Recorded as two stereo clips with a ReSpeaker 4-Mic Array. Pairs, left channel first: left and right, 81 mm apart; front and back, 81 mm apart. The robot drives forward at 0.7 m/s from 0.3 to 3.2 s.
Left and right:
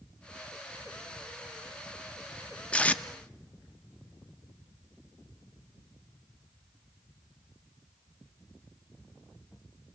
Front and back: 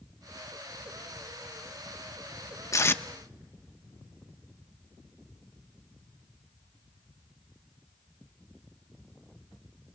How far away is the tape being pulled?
About 0.6 m.